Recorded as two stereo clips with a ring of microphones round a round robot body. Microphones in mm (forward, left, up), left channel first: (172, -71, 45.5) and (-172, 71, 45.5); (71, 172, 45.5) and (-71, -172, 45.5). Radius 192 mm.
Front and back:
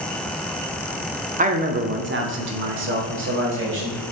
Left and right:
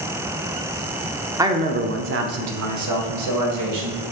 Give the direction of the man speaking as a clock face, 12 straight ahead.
6 o'clock.